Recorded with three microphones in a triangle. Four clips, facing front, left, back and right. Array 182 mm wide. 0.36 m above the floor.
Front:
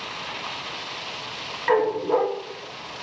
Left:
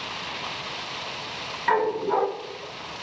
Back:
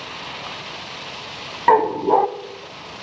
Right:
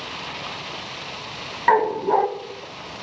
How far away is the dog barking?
About 0.6 m.